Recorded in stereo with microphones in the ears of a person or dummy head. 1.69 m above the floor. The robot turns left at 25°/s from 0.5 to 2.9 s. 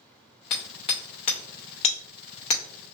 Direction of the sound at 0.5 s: 20° left (ahead or behind).